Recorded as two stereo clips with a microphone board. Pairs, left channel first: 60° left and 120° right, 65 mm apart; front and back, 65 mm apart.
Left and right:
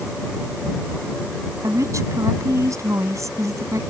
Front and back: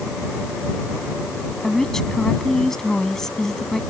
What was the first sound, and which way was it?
A woman speaking, 85° right.